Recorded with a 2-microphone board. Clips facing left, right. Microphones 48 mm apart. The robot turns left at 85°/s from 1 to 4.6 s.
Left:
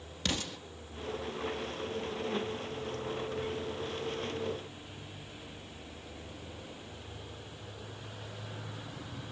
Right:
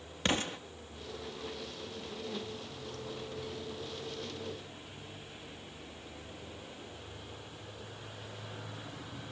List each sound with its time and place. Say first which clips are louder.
0.2 s an explosion: right 4 dB; 30° right (ahead or behind), 1.0 m